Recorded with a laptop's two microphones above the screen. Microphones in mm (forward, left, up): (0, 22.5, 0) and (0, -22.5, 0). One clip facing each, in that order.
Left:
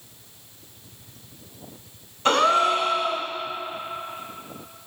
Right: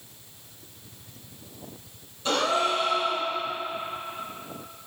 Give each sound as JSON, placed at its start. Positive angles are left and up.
{"t": 2.2, "sound": "a gasp", "side_deg": 60, "distance_m": 2.0}